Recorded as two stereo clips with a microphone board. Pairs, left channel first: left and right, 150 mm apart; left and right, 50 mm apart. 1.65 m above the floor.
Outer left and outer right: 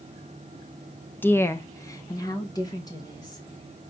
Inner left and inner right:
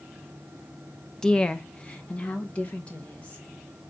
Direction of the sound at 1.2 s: 15° left (ahead or behind).